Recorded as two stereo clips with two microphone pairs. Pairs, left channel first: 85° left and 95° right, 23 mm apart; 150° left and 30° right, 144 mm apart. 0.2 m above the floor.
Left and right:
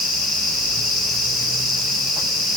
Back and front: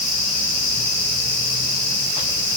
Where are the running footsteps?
I don't hear running footsteps.